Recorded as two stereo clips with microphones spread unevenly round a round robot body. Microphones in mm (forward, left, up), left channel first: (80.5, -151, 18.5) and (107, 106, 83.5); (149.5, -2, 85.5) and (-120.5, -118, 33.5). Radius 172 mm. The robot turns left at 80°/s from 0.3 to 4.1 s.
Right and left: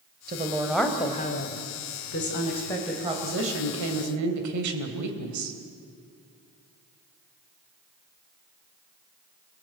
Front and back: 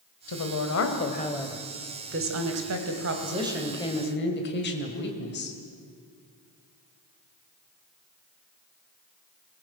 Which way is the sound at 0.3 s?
25° left.